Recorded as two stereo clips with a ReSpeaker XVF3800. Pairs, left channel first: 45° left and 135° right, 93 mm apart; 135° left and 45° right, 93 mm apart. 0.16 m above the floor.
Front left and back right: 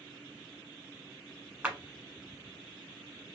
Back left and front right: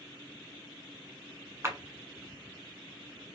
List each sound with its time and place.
1.6 s a clap: 75° right, 1.1 m